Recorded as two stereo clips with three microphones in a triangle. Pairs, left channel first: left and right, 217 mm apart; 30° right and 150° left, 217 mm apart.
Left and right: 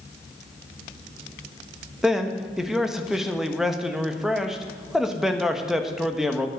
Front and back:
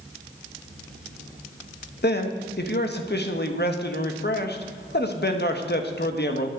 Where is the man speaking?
Straight ahead, 1.3 m.